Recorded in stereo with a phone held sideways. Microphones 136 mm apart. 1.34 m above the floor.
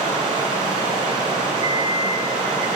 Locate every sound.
0.0 s running water: 40° right (ahead or behind), 6 m
1.6 s an alarm clock: 50° left (ahead or behind), 1.7 m